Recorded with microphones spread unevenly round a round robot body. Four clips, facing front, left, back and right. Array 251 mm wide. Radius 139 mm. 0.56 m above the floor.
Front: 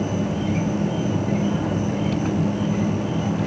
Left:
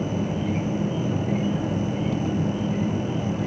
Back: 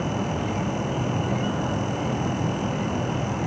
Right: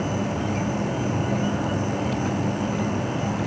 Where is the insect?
5° right, 1.1 m.